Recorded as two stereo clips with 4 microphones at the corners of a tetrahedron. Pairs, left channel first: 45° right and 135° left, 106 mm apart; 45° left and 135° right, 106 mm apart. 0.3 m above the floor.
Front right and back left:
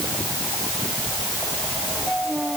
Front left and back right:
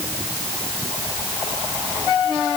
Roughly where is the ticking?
I don't hear ticking.